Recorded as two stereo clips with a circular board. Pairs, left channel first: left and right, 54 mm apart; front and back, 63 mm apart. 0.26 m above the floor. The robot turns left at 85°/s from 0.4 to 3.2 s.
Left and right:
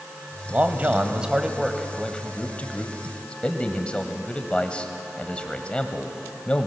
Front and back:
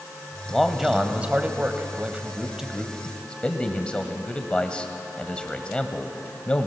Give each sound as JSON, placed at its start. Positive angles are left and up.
{"t": 0.5, "sound": "a man speaking", "azimuth_deg": -75, "distance_m": 1.5}